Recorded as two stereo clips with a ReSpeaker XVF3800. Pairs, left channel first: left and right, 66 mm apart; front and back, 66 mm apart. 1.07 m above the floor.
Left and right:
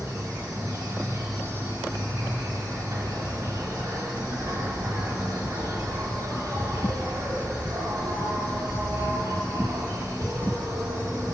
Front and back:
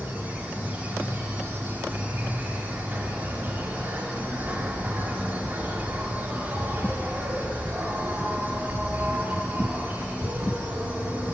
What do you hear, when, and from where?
0.0 s an insect: 120° right, 2.0 m